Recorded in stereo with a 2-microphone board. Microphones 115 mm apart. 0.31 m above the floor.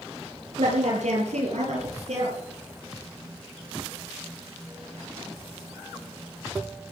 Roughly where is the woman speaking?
Right.